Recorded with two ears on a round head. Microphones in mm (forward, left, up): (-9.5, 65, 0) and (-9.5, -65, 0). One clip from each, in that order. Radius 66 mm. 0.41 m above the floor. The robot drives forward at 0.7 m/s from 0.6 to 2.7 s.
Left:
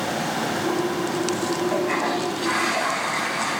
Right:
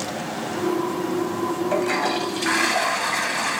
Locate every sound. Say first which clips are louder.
1.7 s a toilet flushing: right 3 dB; 75° right (ahead or behind), 1.1 m; by 3.6 s 55° right (ahead or behind), 1.3 m